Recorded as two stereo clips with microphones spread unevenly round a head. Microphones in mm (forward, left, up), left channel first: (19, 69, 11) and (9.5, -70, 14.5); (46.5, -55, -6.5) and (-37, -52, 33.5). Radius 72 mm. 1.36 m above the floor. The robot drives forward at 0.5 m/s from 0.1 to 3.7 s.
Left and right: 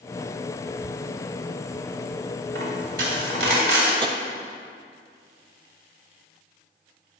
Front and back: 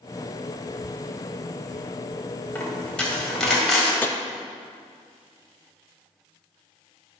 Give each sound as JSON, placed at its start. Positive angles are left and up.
{"t": 2.5, "sound": "a dropped coin", "azimuth_deg": -85, "distance_m": 2.5}
{"t": 4.0, "sound": "tapping", "azimuth_deg": -40, "distance_m": 0.6}